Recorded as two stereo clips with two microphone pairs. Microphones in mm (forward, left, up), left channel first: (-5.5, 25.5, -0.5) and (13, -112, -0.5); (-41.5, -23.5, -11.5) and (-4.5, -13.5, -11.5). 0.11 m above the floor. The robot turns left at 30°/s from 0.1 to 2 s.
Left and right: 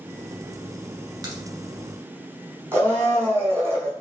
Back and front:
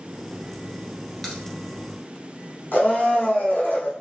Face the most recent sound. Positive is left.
turn(degrees=-155)